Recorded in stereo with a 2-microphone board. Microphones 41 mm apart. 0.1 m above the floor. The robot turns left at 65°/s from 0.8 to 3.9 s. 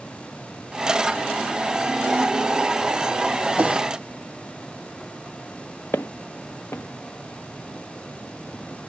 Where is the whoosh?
35° right (ahead or behind), 0.8 m.